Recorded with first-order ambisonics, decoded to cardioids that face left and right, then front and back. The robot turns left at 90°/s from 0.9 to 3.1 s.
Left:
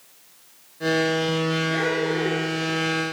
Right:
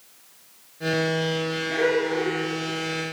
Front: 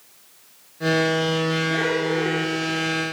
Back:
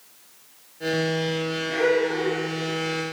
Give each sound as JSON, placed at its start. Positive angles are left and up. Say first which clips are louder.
{"t": 1.7, "sound": "laughter", "louder": "right 1 dB, even", "azimuth_deg": -105, "distance_m": 0.7}